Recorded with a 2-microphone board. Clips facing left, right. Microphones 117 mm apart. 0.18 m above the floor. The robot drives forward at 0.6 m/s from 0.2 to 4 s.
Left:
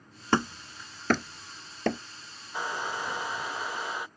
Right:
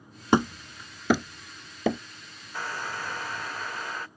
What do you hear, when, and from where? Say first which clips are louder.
0.3 s hammering: right 4 dB; 15° right (ahead or behind); by 2.0 s 5° right (ahead or behind)
2.5 s a hair dryer: left 1 dB; 15° left (ahead or behind); by 4.1 s 10° left (ahead or behind)